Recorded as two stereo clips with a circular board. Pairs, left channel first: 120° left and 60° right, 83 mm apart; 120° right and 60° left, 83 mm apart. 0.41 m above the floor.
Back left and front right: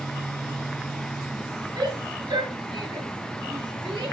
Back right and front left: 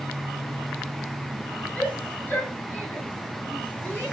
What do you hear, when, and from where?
1.8 s a shout: 50° right, 7 m; by 4.1 s 55° right, 8.5 m